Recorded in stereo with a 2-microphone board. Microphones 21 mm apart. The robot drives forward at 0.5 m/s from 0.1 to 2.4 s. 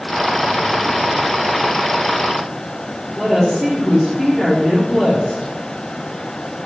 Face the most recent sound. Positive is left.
turn(degrees=-10)  # may be behind; listen again after turning